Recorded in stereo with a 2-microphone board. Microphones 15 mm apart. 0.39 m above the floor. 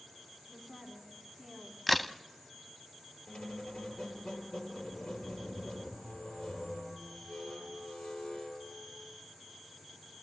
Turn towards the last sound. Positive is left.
turn(degrees=80)